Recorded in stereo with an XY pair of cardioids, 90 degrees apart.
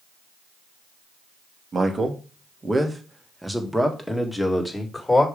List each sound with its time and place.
1.7 s a man speaking: 40° right, 1.6 m; by 5.3 s 15° left, 2.5 m